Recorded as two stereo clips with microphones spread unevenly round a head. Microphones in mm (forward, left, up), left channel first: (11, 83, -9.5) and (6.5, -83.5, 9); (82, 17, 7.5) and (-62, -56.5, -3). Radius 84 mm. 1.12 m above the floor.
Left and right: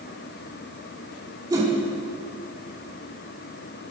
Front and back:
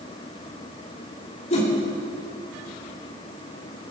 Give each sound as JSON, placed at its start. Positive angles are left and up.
{"t": 1.5, "sound": "a whoosh", "azimuth_deg": -20, "distance_m": 3.5}